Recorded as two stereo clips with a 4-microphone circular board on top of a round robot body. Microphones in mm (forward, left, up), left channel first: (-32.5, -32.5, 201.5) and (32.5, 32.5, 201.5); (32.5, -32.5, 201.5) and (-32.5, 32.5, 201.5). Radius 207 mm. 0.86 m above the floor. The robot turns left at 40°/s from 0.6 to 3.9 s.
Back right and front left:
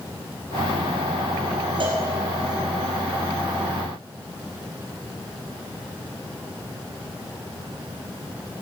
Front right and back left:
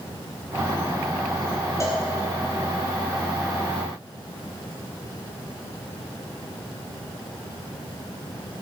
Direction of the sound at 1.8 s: 15° left.